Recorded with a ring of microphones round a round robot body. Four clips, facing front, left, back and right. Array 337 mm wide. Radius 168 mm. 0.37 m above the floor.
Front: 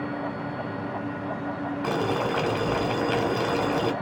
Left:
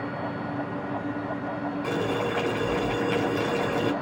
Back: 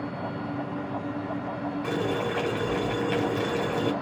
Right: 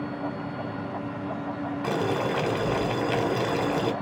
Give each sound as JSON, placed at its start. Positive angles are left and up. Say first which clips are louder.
{"t": 1.8, "sound": "boiling", "louder": "right 2 dB, front 3 dB", "azimuth_deg": -45, "distance_m": 1.6}